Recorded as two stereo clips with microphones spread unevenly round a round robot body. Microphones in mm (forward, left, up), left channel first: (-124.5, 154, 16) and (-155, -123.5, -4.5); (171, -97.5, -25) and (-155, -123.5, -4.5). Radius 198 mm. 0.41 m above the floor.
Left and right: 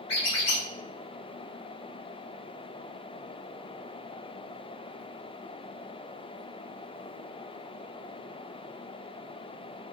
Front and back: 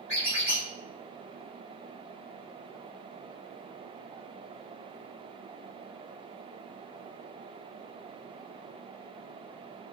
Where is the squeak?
65° left, 1.6 m.